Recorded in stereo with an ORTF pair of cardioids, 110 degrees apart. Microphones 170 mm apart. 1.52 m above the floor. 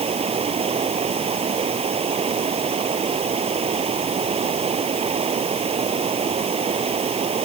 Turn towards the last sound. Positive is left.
turn(degrees=-35)